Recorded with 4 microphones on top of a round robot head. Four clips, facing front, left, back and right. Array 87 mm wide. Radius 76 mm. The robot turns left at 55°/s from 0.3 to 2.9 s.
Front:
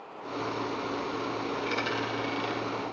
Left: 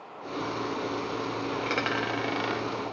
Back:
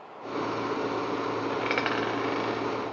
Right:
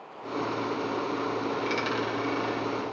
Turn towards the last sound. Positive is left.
turn(degrees=90)